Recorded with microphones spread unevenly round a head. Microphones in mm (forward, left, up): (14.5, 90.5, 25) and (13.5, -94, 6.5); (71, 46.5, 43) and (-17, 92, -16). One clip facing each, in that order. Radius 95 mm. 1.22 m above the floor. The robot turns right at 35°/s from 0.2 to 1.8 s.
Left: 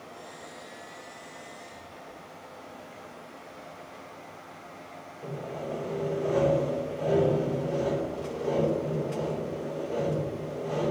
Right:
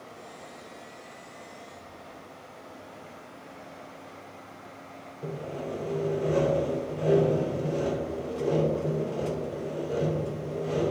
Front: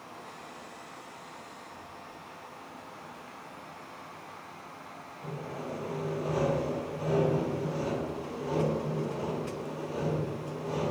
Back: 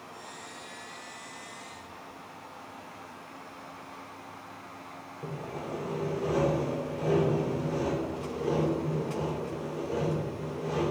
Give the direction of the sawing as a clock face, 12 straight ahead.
5 o'clock.